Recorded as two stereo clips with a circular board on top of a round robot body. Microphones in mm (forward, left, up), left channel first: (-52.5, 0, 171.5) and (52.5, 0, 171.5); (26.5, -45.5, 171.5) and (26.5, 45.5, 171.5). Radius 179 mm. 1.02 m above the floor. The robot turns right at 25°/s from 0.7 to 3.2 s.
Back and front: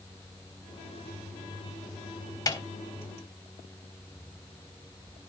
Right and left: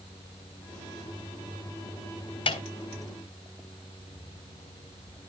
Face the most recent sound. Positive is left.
turn(degrees=-100)